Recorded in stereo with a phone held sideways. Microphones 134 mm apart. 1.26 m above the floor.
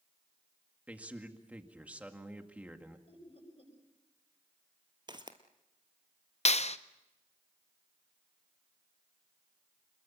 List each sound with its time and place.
0.9 s a man speaking: 10° right (ahead or behind), 2.0 m
3.1 s laughter: 45° left (ahead or behind), 7.5 m
5.1 s footsteps: 35° right (ahead or behind), 1.6 m
6.5 s a clap: 55° left (ahead or behind), 0.7 m